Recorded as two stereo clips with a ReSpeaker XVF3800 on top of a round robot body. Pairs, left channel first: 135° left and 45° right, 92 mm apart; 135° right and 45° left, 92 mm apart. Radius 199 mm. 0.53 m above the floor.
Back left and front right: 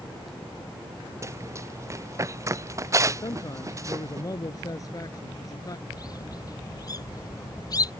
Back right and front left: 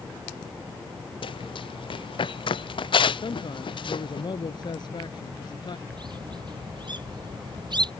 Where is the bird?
85° left.